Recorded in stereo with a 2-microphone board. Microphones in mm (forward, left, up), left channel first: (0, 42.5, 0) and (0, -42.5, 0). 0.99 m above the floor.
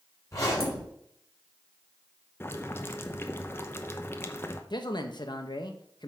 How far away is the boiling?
About 0.8 m.